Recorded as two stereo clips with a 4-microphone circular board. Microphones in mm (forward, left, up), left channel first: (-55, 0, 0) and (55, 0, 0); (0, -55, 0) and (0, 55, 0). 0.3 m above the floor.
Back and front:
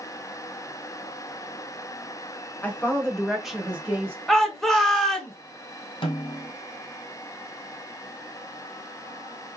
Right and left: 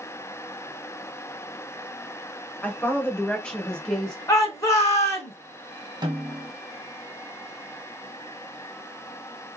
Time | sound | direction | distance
2.6 | a woman speaking | 140° right | 1.3 m
4.3 | a shout | 105° right | 1.2 m
6.0 | a snare drum | 145° left | 1.7 m